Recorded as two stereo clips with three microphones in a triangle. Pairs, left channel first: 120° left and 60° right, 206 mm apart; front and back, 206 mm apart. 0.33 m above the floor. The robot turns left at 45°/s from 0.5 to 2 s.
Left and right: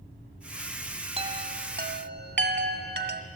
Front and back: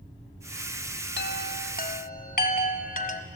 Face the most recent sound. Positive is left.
turn(degrees=-40)